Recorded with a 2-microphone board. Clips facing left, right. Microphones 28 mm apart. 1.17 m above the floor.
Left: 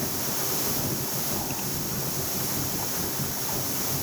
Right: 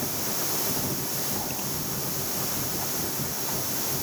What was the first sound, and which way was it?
Only background noise.